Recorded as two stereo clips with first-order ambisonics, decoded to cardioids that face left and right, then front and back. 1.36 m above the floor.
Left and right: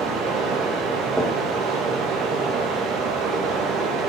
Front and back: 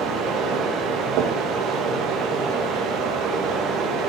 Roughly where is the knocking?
Behind.